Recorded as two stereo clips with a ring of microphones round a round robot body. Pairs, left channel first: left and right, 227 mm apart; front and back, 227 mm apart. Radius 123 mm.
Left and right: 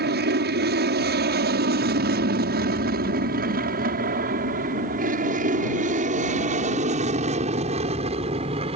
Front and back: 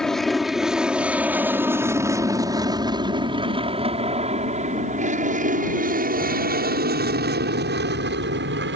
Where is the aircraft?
85° right; by 8.8 s 155° right.